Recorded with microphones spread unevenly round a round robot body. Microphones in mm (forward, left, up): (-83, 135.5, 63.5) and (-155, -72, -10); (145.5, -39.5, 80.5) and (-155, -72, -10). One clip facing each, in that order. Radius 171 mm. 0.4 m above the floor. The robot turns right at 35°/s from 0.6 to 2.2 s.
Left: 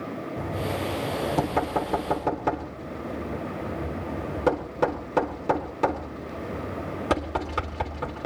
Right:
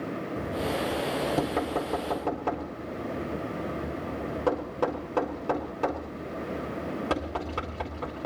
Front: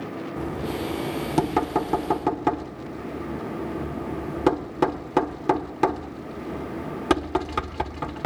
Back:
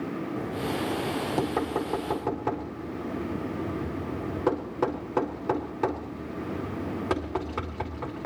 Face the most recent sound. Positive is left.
turn(degrees=-15)